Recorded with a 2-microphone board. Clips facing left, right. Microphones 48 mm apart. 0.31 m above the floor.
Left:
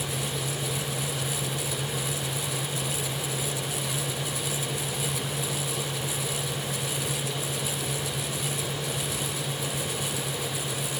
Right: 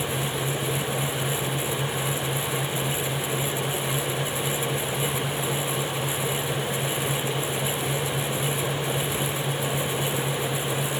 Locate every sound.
Only background noise.